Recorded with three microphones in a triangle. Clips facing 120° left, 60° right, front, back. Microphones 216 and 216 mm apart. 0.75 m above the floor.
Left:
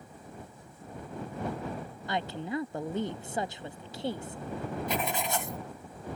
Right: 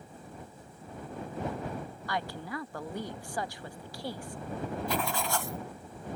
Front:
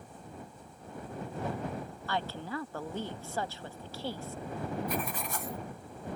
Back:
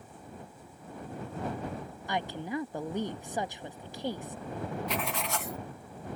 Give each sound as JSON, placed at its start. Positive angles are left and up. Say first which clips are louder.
{"t": 2.1, "sound": "a woman speaking", "louder": "left 4 dB, back 3 dB", "azimuth_deg": 135}
{"t": 4.9, "sound": "writing", "louder": "left 1 dB, back 1 dB", "azimuth_deg": -170}